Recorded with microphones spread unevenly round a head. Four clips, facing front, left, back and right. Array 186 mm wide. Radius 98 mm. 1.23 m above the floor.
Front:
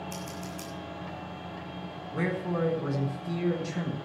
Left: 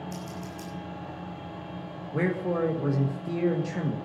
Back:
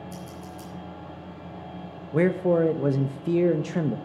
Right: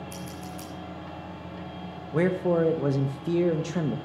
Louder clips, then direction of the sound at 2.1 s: Right 4 dB, back 9 dB; 165° right.